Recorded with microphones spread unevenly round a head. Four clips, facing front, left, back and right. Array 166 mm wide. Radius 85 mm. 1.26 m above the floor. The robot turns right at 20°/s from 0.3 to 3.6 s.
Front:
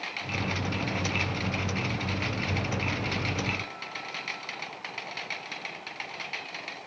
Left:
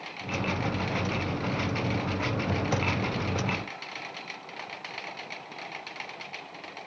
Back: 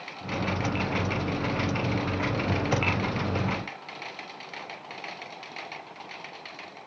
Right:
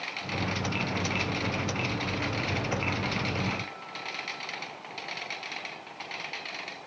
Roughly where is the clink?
I don't hear a clink.